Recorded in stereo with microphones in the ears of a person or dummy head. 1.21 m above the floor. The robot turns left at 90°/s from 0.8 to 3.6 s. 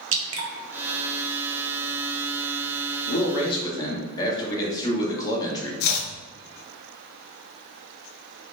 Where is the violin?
No violin in this recording.